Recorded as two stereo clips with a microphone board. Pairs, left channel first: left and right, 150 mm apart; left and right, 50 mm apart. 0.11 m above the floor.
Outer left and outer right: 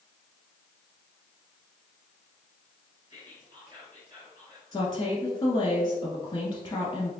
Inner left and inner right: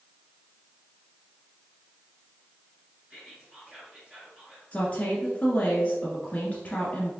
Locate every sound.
3.1 s whispering: 25° right (ahead or behind), 1.8 m
4.7 s a woman speaking: 30° left (ahead or behind), 1.4 m